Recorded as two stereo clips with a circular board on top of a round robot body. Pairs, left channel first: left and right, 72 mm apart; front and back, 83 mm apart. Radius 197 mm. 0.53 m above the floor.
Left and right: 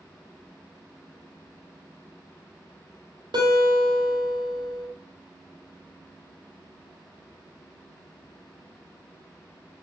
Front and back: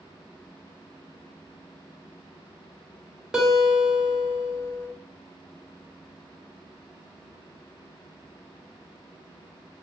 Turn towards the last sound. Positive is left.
turn(degrees=-95)